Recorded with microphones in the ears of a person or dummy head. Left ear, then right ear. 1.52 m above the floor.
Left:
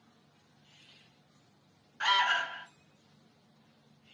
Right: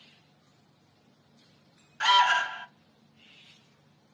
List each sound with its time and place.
2.0 s an alarm: 15° right (ahead or behind), 0.7 m